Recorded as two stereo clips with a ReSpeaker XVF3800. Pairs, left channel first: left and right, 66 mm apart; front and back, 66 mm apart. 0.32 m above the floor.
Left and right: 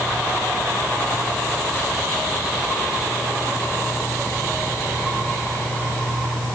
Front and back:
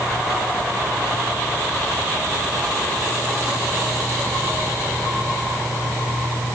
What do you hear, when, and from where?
Only background noise.